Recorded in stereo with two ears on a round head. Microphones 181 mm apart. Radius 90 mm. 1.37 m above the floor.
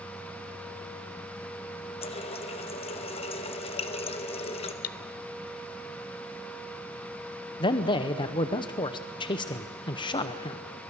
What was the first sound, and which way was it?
A running tap, 30° left (ahead or behind).